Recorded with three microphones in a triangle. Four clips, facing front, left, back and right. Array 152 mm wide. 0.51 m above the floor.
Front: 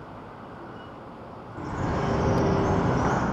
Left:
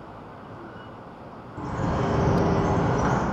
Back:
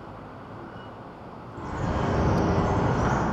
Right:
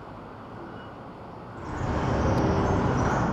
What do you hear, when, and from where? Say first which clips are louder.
1.6 s a bird: left 3 dB, front 1 dB; 80° left, 2.5 m